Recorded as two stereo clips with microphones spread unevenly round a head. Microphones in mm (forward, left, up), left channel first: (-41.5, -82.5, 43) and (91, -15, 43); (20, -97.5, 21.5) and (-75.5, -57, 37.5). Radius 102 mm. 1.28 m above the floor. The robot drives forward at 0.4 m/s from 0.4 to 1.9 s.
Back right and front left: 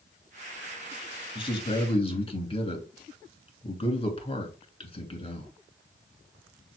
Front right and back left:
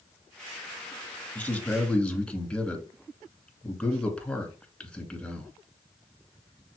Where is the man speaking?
95° right, 3 m; by 5.5 s 100° right, 3 m.